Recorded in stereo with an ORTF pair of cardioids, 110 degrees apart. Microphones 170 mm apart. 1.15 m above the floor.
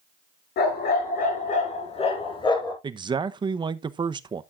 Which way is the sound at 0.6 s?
65° left.